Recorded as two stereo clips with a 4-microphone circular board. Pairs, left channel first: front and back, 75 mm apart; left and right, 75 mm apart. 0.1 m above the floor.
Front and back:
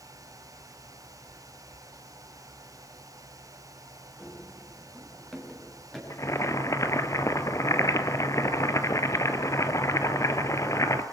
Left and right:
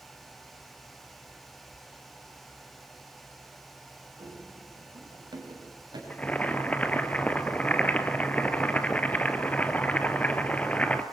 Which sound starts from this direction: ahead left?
Boiling, at 6.1 s.